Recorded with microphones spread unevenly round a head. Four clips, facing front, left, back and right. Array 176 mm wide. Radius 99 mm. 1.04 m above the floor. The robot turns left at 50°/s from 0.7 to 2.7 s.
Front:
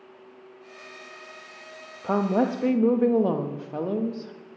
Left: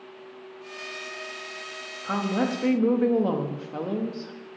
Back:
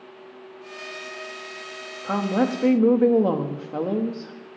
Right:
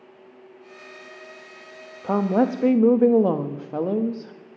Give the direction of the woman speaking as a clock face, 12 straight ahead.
3 o'clock.